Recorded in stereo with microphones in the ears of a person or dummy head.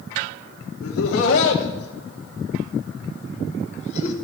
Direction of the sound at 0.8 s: 85° left.